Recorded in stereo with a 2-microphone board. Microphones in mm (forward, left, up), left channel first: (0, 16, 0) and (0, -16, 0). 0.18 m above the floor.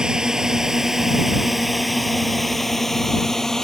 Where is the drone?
20° right (ahead or behind); by 3.6 s 15° left (ahead or behind).